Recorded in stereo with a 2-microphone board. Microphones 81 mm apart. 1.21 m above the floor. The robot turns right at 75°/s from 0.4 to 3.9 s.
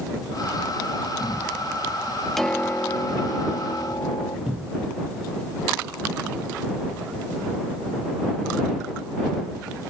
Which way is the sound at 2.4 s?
Straight ahead.